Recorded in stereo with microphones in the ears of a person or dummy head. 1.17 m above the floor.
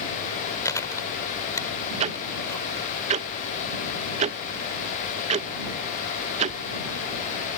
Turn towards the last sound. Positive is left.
turn(degrees=-35)  # may be behind; listen again after turning